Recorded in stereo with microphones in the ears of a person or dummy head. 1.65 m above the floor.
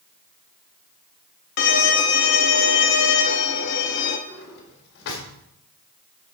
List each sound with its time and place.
1.6 s a violin: 55° left (ahead or behind), 0.8 m
4.3 s a drawer: 55° left (ahead or behind), 1.9 m